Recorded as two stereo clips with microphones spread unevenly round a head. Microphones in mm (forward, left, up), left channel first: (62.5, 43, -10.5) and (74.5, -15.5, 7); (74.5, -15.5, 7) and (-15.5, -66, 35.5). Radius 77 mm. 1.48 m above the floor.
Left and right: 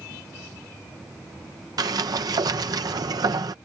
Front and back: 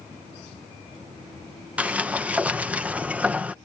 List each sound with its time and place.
1.8 s a sliding door: 75° right